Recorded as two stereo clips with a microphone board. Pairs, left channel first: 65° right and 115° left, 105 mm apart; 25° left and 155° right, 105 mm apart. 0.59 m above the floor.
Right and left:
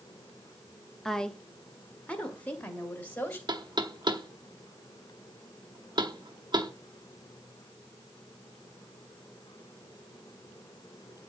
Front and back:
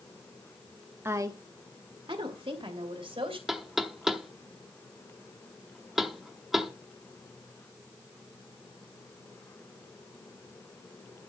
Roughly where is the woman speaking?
Behind right.